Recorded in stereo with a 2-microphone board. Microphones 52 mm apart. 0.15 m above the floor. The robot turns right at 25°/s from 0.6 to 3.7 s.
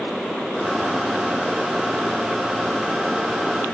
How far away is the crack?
No crack in this recording.